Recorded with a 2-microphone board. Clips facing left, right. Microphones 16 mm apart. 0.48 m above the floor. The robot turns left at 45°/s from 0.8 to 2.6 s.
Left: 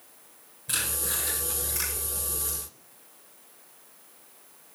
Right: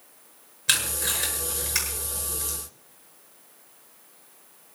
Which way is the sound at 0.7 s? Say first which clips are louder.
Right 6 dB; 80° right.